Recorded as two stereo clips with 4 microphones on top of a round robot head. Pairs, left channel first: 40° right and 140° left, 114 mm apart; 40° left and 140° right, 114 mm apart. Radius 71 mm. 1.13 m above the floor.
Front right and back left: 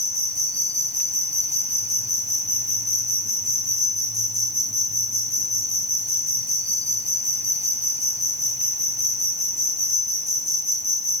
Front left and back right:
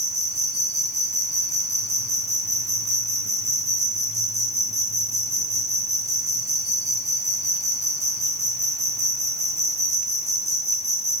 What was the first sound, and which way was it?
An insect, 75° right.